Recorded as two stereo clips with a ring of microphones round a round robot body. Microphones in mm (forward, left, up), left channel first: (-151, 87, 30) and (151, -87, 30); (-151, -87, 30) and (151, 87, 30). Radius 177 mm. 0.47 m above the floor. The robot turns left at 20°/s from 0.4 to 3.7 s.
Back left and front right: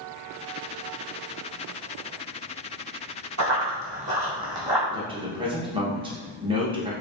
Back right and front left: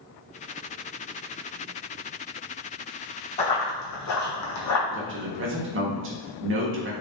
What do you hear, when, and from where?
3.4 s running footsteps: 80° right, 1.6 m; by 4.8 s 115° right, 1.5 m
4.9 s a man speaking: 35° left, 0.9 m